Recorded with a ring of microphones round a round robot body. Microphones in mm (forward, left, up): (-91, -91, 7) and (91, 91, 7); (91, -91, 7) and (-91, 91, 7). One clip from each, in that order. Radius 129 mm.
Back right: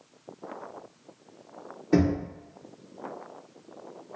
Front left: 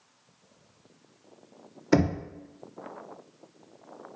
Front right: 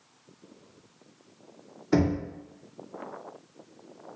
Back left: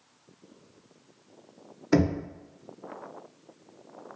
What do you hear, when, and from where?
1.9 s knocking: 65° left, 0.6 m